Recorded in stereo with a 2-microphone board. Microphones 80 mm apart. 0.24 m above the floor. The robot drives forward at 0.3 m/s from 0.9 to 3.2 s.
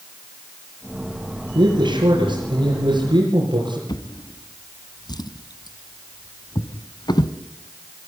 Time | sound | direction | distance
1.6 | a man speaking | 75° right (ahead or behind) | 6.5 m
3.9 | a drawer | 60° left (ahead or behind) | 1.3 m